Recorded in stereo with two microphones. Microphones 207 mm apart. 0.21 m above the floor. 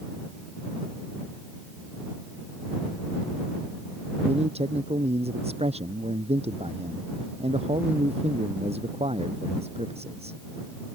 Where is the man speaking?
30° right (ahead or behind).